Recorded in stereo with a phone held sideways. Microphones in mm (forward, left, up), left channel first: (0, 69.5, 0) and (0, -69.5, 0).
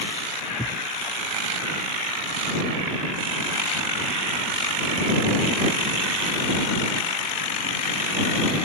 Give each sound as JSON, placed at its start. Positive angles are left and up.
{"t": 0.6, "sound": "a thud", "side_deg": 80}